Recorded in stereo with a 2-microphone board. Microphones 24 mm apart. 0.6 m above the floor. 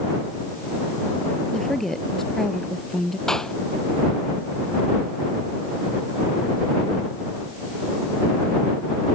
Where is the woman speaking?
15° left (ahead or behind).